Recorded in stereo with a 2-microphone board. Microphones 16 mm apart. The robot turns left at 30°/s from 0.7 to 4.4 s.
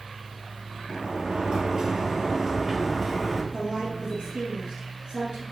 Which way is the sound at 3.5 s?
50° right (ahead or behind).